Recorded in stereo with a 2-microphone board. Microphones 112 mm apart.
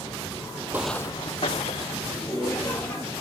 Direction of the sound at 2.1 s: 25° left (ahead or behind).